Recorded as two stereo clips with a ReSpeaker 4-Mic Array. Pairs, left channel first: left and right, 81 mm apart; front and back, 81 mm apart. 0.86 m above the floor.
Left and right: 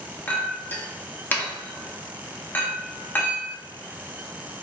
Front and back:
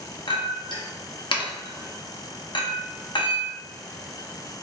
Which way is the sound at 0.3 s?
25° left.